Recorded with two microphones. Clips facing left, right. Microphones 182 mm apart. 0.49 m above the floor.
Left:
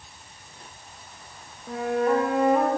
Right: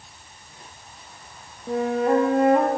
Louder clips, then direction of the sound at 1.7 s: Right 2 dB; 25° right (ahead or behind).